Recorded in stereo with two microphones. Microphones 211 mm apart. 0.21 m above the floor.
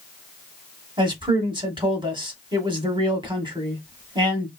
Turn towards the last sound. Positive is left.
turn(degrees=-20)  # may be behind; listen again after turning